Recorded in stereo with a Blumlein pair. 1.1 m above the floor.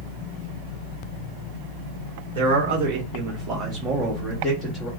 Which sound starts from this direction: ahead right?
A man speaking, at 2.4 s.